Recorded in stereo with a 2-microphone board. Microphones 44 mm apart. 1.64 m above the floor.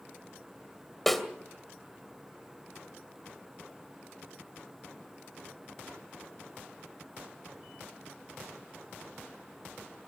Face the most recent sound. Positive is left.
turn(degrees=5)  # may be behind; listen again after turning